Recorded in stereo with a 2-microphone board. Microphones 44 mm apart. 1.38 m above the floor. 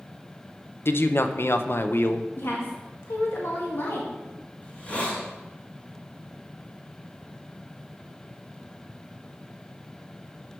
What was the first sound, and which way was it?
A man speaking, 60° left (ahead or behind).